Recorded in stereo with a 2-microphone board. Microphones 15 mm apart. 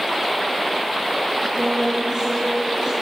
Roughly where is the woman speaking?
Right.